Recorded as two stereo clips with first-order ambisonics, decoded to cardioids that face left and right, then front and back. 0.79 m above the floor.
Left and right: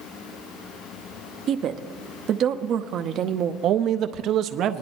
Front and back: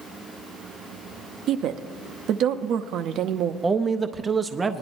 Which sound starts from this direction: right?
A man speaking, at 3.6 s.